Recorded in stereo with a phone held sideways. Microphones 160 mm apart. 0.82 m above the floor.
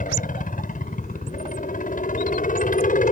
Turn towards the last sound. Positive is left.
turn(degrees=55)  # may be behind; listen again after turning